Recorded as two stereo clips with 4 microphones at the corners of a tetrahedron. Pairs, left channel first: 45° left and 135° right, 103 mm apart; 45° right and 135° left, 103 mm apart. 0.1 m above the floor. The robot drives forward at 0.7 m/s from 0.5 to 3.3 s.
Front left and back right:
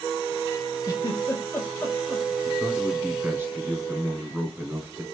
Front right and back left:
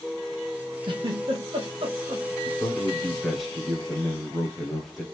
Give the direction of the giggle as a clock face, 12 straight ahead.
9 o'clock.